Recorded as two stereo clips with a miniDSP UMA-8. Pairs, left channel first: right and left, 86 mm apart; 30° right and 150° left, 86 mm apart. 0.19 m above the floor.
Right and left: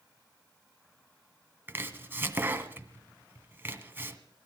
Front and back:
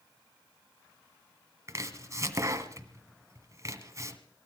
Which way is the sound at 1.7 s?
135° left.